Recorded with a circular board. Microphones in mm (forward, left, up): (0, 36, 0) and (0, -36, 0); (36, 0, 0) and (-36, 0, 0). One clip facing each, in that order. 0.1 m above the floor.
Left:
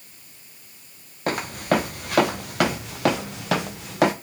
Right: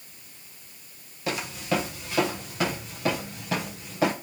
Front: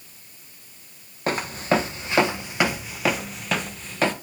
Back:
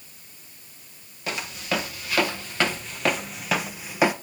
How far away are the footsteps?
About 1.5 m.